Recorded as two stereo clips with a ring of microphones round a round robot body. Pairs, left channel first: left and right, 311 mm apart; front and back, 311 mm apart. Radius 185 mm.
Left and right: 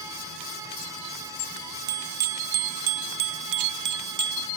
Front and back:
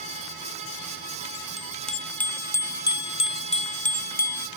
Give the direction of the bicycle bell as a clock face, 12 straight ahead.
3 o'clock.